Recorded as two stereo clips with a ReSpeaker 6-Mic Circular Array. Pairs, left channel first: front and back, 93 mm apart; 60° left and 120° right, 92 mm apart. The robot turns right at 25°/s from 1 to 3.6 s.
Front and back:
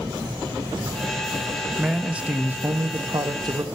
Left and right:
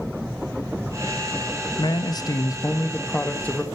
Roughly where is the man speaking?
Left.